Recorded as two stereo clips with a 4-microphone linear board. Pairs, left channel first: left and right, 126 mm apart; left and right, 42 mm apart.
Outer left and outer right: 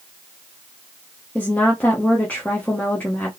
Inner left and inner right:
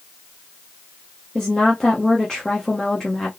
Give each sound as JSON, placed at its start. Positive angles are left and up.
{"t": 1.4, "sound": "a woman speaking", "side_deg": 15, "distance_m": 1.0}